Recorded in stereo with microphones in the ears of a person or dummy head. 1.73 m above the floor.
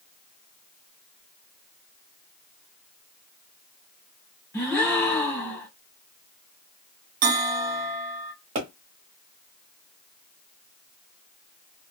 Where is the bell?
50° right (ahead or behind), 0.9 m.